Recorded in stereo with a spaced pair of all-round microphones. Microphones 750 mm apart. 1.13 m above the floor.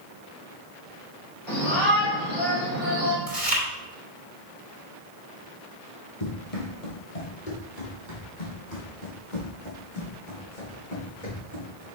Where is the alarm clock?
No alarm clock in this recording.